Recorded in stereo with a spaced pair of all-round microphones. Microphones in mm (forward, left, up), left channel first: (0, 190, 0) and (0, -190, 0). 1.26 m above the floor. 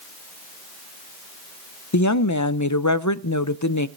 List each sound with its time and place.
1.9 s a woman speaking: 50° left (ahead or behind), 0.6 m